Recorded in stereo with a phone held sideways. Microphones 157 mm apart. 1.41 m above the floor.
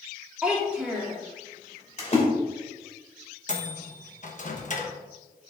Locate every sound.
0.4 s a child speaking: 5° right (ahead or behind), 2.5 m
2.0 s a splash: 45° left (ahead or behind), 2.5 m
3.5 s a microwave: 55° left (ahead or behind), 1.1 m